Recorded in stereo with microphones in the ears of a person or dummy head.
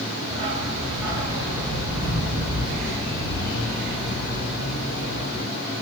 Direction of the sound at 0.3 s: 35° right (ahead or behind).